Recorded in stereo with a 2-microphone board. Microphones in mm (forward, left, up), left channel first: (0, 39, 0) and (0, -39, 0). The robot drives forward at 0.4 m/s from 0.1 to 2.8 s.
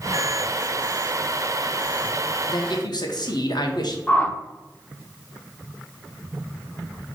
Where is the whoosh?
20° left (ahead or behind), 0.5 m.